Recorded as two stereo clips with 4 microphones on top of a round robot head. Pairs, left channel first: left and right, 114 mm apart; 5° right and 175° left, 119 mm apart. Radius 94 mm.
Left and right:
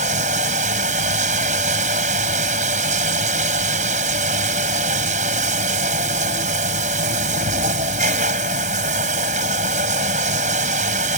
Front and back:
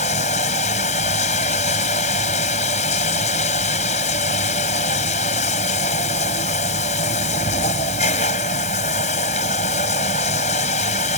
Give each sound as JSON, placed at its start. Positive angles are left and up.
{"t": 0.0, "sound": "running water", "azimuth_deg": -50}